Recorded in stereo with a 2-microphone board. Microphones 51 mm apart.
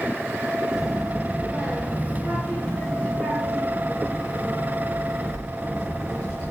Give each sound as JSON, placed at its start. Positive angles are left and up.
{"t": 0.7, "sound": "a child speaking", "side_deg": -10, "distance_m": 3.0}